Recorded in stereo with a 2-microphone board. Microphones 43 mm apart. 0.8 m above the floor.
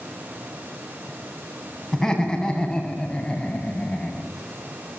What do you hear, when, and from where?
1.9 s laughter: 10° left (ahead or behind), 8 m; by 4.3 s 30° left (ahead or behind), 6.5 m